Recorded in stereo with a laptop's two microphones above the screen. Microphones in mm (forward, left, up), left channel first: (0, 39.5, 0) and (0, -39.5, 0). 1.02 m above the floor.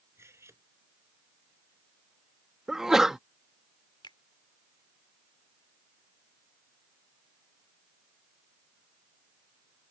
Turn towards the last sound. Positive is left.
turn(degrees=80)